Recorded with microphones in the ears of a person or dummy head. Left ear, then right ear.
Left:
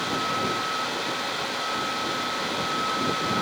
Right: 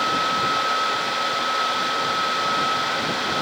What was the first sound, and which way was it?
Only background noise.